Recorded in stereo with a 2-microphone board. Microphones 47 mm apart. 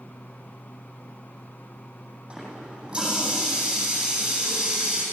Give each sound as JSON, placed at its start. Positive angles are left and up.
{"t": 2.3, "sound": "a running tap", "side_deg": -20, "distance_m": 9.0}